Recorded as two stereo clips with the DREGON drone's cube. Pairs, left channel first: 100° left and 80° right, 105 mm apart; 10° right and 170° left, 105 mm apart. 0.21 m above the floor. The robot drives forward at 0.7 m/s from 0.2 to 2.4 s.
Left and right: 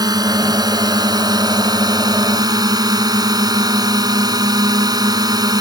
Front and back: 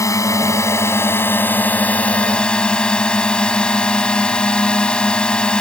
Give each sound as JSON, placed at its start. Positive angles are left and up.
{"t": 0.0, "sound": "a drone", "azimuth_deg": -55}